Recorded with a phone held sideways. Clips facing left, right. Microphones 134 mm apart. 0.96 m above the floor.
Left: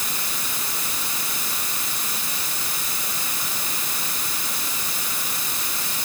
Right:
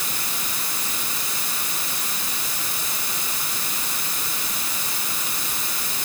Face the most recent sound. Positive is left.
No sound to turn to.